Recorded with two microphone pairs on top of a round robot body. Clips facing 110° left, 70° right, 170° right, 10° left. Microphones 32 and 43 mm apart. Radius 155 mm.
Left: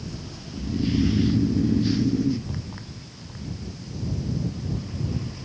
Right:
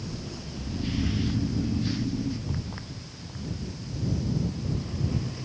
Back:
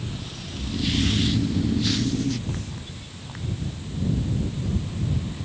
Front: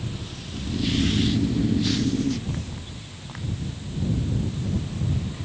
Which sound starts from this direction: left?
Snoring, at 0.5 s.